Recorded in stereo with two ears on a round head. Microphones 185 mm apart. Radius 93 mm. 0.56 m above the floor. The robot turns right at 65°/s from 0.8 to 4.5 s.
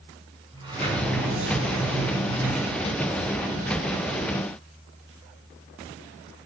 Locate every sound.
0.5 s a sliding door: 160° right, 4.5 m; by 4.2 s 65° left, 4.5 m